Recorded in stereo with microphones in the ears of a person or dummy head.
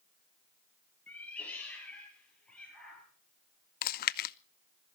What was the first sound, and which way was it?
A cat meowing, 10° left (ahead or behind).